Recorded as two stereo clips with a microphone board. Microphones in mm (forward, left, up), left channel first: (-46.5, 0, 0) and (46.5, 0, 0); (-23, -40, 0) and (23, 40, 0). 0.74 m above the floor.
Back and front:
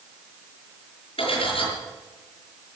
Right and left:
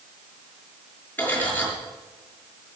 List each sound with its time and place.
1.2 s cutlery clinking: 170° left, 6.5 m